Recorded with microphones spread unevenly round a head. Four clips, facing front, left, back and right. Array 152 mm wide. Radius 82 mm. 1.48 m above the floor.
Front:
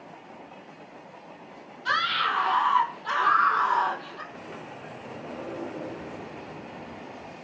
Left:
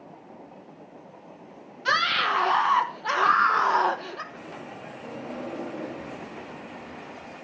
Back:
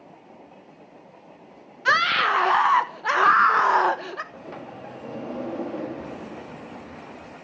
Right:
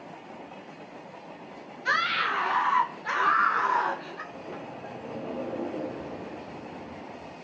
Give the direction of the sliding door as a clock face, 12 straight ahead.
6 o'clock.